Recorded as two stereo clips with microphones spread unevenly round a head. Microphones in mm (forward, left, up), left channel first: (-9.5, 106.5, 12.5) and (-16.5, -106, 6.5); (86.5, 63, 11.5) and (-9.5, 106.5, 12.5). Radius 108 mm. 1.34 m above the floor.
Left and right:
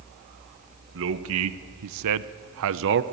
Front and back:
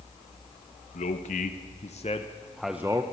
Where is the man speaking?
55° right, 1.1 m; by 3.0 s 130° right, 0.8 m.